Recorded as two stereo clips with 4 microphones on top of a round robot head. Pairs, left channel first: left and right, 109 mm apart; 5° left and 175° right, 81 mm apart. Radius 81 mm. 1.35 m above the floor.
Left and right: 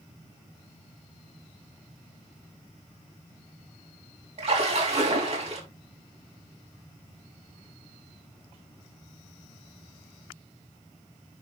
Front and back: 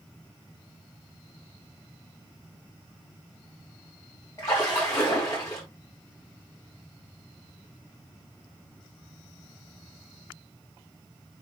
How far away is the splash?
About 4 m.